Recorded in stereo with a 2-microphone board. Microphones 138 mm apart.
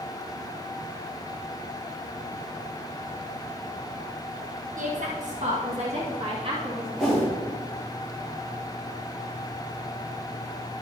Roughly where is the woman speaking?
Right.